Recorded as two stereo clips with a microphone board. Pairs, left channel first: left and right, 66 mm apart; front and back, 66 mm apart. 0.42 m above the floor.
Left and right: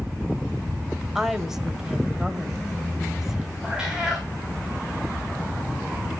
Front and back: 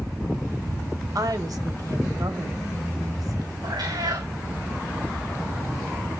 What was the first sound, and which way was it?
A woman speaking, 170° right.